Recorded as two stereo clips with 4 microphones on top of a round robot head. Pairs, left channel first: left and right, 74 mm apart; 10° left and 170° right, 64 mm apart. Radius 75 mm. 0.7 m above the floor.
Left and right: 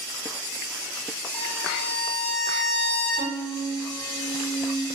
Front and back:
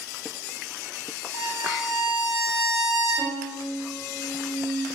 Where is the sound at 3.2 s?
175° left, 3 m.